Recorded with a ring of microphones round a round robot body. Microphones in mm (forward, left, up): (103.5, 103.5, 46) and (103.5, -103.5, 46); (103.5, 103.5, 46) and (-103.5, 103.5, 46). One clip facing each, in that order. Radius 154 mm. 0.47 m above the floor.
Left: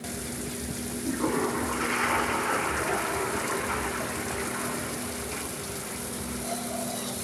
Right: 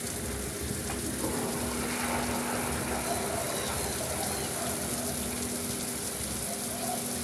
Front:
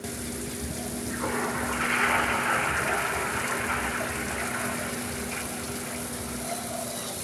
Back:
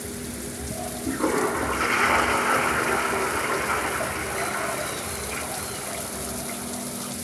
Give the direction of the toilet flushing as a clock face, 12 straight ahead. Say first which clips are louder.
Left 7 dB, back 9 dB; 7 o'clock.